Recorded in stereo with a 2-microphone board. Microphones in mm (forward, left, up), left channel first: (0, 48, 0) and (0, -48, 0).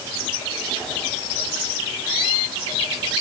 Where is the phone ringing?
I don't hear a phone ringing.